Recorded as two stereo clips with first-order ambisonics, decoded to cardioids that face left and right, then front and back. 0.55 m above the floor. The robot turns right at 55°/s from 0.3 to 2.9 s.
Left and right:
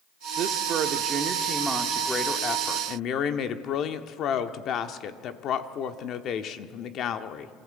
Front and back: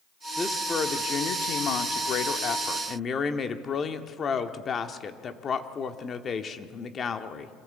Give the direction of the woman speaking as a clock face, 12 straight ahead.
3 o'clock.